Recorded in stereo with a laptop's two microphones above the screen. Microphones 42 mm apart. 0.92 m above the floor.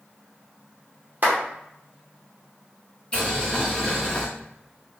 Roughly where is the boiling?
Left.